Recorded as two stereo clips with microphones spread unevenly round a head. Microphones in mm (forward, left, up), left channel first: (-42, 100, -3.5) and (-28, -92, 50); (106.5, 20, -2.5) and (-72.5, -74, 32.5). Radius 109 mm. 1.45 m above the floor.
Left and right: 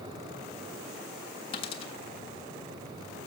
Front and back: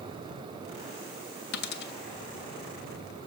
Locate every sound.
1.5 s a dropped coin: 20° left, 1.2 m